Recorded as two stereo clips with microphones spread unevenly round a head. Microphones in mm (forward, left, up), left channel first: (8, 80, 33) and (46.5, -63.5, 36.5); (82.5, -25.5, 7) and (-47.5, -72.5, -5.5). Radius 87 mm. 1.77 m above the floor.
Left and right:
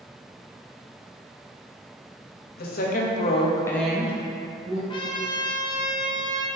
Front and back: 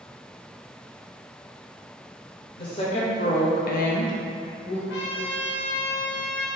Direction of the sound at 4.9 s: 45° left.